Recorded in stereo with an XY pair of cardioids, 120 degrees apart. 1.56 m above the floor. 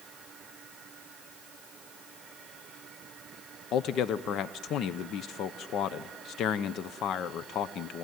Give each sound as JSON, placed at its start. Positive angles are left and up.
{"t": 3.7, "sound": "a man speaking", "azimuth_deg": 65, "distance_m": 0.7}